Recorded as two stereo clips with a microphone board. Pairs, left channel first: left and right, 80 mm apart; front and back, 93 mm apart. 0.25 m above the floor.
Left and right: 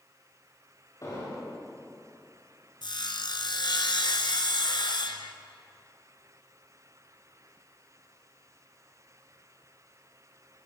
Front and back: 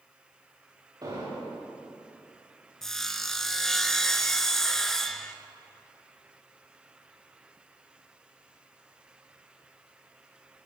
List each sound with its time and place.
1.0 s an explosion: 135° left, 10 m
2.8 s sawing: 85° left, 1.5 m